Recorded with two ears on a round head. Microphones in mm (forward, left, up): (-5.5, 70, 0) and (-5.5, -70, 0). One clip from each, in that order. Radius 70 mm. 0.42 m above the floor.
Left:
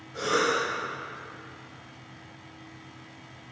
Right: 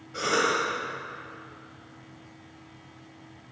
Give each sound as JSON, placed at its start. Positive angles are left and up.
{"t": 0.1, "sound": "a cough", "side_deg": -35, "distance_m": 1.8}